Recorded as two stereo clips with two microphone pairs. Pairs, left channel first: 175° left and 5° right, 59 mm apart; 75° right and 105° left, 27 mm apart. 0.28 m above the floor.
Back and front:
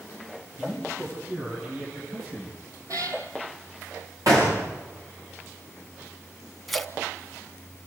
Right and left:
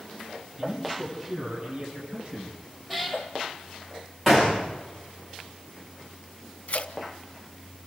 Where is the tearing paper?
95° right, 0.9 m.